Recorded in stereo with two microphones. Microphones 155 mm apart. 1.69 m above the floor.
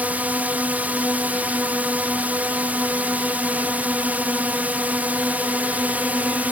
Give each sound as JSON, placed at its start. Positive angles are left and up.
{"t": 0.0, "sound": "a drone", "side_deg": -10}